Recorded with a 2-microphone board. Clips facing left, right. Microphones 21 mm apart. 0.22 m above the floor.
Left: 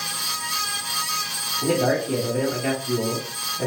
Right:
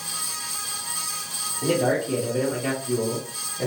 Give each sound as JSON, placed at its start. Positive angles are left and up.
{"t": 1.6, "sound": "a man speaking", "side_deg": 15, "distance_m": 1.1}